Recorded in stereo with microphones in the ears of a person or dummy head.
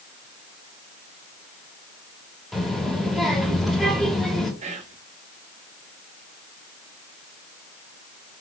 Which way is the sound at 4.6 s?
35° right (ahead or behind).